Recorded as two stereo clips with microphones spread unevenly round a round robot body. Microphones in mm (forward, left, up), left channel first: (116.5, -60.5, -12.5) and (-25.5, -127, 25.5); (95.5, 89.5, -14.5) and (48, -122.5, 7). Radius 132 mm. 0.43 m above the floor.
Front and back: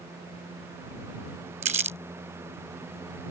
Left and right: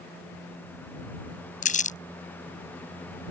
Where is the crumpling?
135° left.